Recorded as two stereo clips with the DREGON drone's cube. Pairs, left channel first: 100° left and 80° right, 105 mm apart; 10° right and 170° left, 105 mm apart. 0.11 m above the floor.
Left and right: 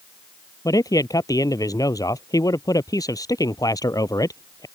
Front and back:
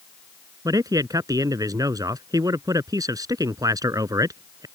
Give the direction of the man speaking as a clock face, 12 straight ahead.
8 o'clock.